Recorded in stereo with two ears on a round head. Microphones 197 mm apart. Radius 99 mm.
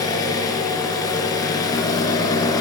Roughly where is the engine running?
Centre.